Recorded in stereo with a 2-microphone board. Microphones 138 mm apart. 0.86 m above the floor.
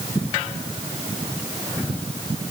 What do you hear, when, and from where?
Only background noise.